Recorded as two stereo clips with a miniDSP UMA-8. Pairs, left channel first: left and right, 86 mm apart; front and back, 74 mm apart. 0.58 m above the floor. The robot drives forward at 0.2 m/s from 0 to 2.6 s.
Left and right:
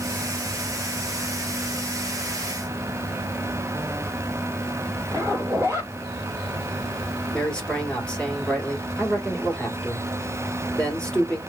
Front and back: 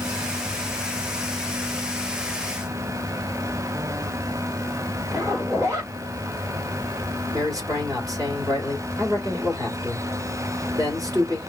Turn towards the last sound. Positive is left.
turn(degrees=165)